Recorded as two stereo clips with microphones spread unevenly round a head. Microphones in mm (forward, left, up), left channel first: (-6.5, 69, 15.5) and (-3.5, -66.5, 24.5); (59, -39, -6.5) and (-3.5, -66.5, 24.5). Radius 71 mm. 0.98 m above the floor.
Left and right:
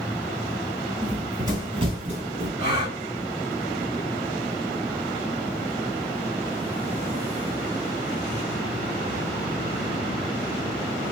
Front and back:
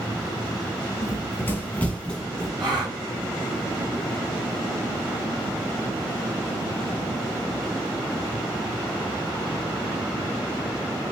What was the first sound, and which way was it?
Running footsteps, 20° right.